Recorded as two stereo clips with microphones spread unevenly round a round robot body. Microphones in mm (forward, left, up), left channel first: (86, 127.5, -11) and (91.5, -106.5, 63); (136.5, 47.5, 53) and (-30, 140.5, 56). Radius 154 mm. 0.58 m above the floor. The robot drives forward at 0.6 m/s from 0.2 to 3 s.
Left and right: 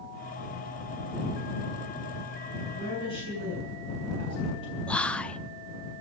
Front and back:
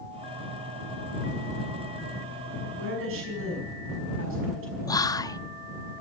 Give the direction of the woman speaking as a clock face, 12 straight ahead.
7 o'clock.